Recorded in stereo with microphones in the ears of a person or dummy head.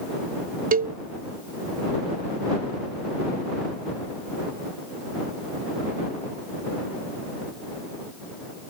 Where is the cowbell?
40° right (ahead or behind).